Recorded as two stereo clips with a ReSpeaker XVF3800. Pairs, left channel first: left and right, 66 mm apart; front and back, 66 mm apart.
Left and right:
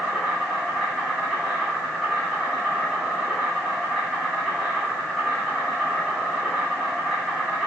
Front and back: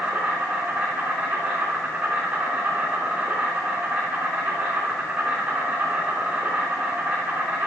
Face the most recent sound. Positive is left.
turn(degrees=180)